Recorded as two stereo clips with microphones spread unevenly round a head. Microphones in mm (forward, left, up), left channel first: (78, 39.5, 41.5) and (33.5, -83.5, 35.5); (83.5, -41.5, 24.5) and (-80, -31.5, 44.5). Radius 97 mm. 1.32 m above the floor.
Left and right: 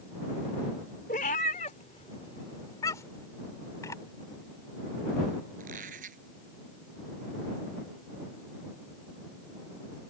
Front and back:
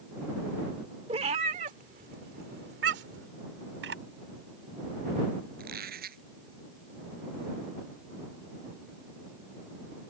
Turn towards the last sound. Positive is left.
turn(degrees=-155)